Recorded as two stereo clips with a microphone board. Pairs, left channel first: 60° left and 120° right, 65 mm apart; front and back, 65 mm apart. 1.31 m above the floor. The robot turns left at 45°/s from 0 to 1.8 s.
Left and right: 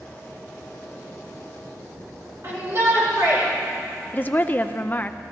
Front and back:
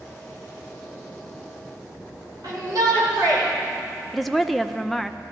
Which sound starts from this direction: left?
A woman speaking, at 4.1 s.